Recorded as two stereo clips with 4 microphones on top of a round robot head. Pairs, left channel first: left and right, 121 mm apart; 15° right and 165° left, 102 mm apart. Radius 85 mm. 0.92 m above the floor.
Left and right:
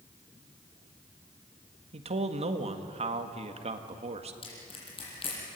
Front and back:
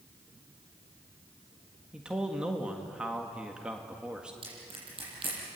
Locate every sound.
1.9 s a man speaking: 110° right, 1.9 m
4.4 s crushing: 135° left, 8 m